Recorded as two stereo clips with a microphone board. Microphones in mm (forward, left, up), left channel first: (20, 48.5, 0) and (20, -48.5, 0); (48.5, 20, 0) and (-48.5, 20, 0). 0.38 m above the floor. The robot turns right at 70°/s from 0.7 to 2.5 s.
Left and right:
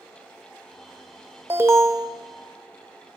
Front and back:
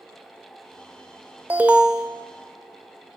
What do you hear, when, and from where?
1.5 s an alarm: 130° right, 0.6 m; by 2.1 s 90° right, 0.6 m